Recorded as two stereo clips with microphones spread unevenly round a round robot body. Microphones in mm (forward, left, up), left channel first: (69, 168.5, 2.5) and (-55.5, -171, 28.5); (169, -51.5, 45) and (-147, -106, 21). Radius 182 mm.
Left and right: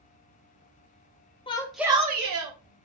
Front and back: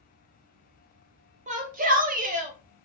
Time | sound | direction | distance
1.5 | a shout | 135° left | 1.1 m